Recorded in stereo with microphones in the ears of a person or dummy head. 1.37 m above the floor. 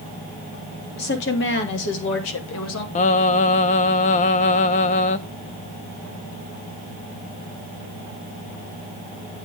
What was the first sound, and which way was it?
A woman speaking, 60° left (ahead or behind).